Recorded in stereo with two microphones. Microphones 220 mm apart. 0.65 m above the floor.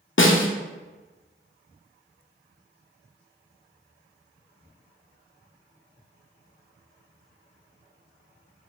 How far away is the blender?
No blender in this recording.